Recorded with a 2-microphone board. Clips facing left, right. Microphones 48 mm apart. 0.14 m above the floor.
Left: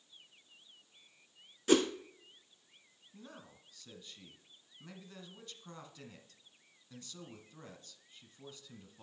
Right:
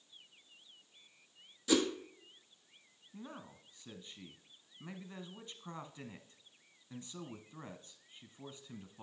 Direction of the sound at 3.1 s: 20° right (ahead or behind).